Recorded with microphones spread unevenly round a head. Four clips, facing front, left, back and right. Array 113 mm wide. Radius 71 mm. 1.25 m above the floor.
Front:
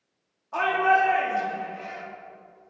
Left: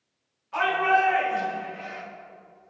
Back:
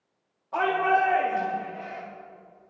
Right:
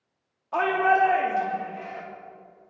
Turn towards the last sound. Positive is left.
turn(degrees=-115)